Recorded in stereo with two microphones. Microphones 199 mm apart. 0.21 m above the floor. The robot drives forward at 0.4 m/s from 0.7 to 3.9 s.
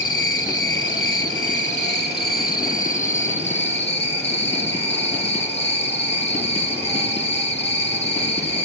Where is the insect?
80° left, 0.7 m; by 8.7 s 30° left (ahead or behind), 1.4 m.